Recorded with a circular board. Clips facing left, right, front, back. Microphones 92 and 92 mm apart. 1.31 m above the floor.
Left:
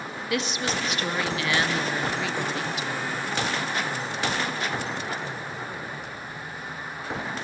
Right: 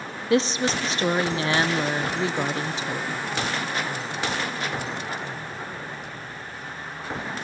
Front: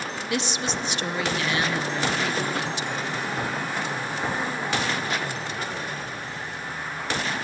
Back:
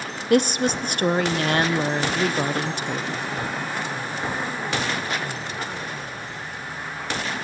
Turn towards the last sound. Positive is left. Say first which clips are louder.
# right 6 dB, back 10 dB
turn(degrees=-145)